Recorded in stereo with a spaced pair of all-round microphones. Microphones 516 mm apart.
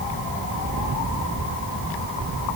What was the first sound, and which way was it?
Only background noise.